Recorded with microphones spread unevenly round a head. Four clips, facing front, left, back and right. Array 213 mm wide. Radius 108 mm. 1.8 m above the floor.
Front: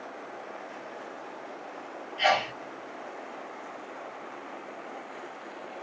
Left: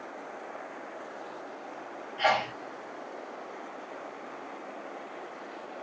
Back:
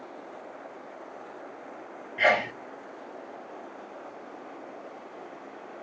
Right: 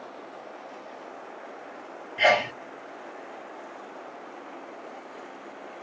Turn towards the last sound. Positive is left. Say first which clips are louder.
# right 4 dB, back 1 dB
turn(degrees=-140)